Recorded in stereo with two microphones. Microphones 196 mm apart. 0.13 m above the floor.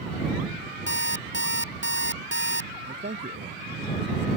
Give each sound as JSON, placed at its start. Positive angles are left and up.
{"t": 0.9, "sound": "an alarm clock", "side_deg": 75}
{"t": 2.8, "sound": "a man speaking", "side_deg": -60}